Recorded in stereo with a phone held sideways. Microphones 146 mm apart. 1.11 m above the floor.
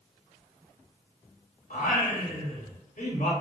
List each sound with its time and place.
1.7 s singing: 65° left (ahead or behind), 0.8 m